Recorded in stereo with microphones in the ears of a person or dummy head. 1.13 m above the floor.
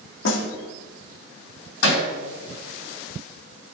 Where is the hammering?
85° left, 6.5 m.